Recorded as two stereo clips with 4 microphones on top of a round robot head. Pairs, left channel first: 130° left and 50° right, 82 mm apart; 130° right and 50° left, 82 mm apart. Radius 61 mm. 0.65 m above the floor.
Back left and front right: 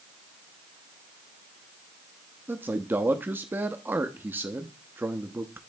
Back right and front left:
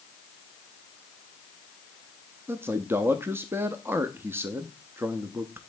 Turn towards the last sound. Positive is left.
turn(degrees=5)